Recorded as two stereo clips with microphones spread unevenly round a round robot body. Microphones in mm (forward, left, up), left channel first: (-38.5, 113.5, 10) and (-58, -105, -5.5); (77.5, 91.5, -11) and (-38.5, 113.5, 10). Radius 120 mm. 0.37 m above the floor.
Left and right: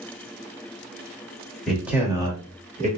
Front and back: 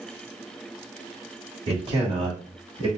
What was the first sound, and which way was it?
A man speaking, 175° left.